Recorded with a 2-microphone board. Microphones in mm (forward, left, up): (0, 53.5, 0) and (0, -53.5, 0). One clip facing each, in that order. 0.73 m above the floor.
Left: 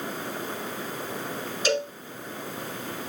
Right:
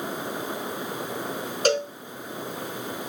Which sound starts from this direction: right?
A cowbell, at 1.6 s.